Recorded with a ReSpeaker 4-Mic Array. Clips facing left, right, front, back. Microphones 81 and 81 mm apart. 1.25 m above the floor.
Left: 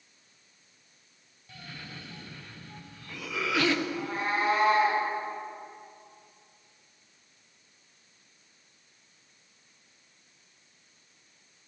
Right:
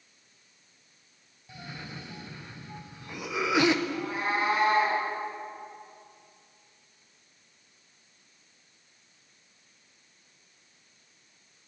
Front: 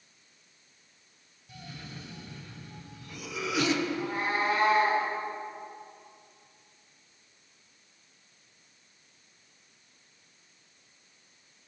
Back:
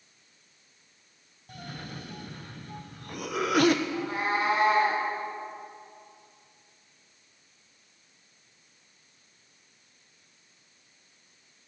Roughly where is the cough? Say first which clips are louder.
Right 3 dB, back 4 dB; behind.